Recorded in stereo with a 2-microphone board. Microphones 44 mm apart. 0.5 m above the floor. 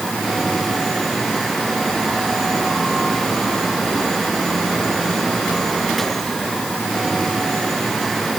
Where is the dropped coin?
No dropped coin in this recording.